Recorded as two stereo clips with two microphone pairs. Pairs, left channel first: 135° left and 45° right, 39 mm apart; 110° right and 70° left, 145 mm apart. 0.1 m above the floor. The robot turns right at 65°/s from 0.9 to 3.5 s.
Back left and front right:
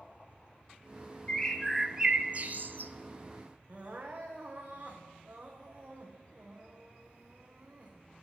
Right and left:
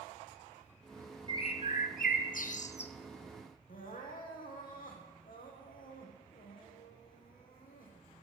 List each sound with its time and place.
1.3 s a bird: 165° right, 0.9 m; by 2.9 s 60° right, 0.9 m
3.7 s crying: 100° right, 3 m